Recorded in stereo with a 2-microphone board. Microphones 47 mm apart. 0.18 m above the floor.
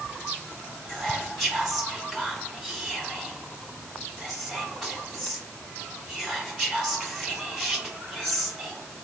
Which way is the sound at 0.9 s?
5° right (ahead or behind).